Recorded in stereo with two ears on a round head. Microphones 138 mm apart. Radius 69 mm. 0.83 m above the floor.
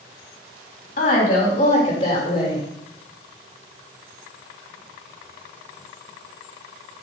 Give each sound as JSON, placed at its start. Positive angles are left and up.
{"t": 1.0, "sound": "a woman speaking", "side_deg": 50, "distance_m": 3.0}